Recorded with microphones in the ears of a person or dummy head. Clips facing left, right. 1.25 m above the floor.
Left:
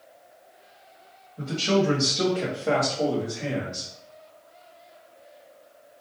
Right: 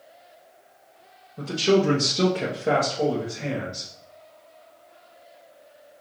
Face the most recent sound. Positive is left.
turn(degrees=5)  # may be behind; listen again after turning